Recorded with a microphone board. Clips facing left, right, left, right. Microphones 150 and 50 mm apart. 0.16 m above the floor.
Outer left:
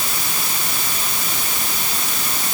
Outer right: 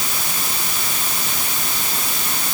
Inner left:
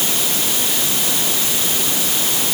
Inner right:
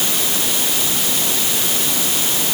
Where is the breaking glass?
I don't hear breaking glass.